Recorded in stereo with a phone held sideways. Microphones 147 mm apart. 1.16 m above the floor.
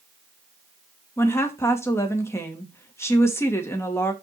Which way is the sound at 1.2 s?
15° left (ahead or behind).